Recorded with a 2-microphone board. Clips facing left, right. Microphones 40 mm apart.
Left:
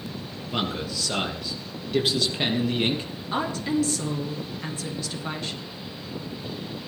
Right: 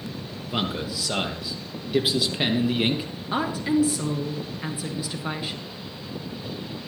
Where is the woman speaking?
15° right (ahead or behind), 1.9 m.